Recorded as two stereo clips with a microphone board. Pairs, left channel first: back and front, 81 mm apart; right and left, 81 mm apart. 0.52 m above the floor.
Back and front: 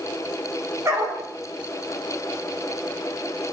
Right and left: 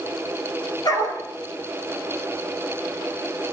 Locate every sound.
0.8 s a dog barking: 55° right, 6.5 m